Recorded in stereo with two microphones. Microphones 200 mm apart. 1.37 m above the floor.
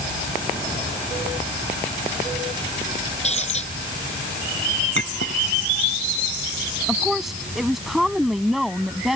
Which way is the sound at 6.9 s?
Centre (ahead or behind).